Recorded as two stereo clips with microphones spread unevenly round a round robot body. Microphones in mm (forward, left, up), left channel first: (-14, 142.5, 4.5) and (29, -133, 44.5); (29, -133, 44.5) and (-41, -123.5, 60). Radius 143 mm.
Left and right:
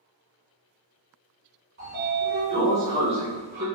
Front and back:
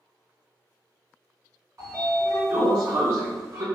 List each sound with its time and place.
1.8 s a sliding door: 140° right, 1.3 m